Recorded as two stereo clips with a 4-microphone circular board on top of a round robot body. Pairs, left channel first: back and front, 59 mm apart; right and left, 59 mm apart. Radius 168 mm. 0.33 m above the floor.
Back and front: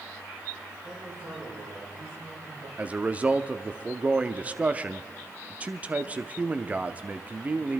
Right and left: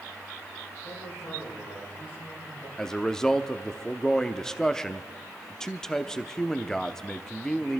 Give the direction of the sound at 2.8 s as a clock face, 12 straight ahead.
1 o'clock.